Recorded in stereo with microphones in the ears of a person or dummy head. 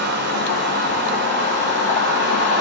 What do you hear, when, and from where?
0.0 s a fan: 70° right (ahead or behind), 1.6 m